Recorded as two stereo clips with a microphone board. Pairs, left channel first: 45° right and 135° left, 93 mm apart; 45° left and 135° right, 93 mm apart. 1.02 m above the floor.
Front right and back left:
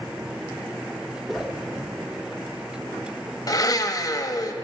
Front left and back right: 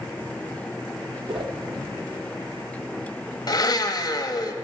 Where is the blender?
Straight ahead, 0.6 m.